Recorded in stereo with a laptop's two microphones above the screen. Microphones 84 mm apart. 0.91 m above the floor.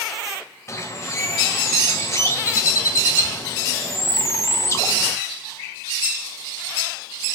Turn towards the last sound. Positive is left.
turn(degrees=35)  # may be behind; listen again after turning